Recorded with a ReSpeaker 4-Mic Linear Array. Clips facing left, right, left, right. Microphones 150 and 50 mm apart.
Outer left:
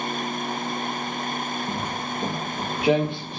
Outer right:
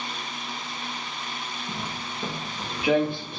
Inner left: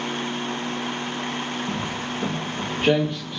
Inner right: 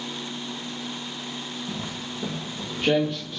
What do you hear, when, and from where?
1.7 s footsteps: 55° left (ahead or behind), 1.2 m; by 3.4 s 15° left (ahead or behind), 1.5 m